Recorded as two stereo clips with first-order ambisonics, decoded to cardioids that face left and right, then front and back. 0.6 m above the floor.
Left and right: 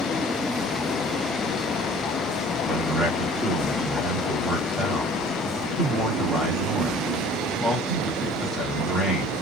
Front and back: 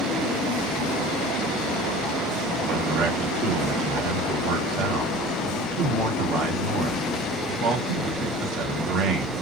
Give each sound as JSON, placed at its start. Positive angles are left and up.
{"t": 2.7, "sound": "a man speaking", "azimuth_deg": -175, "distance_m": 1.7}